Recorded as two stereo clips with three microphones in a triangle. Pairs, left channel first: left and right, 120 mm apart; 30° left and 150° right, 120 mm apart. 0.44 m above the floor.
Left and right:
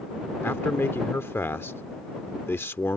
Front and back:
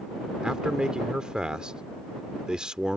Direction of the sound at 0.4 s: 135° left.